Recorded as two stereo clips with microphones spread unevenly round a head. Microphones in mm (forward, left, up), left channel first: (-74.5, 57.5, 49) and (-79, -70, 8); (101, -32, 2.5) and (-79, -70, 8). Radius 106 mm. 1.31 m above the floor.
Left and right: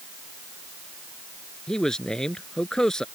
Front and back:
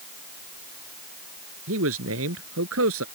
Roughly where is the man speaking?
Behind.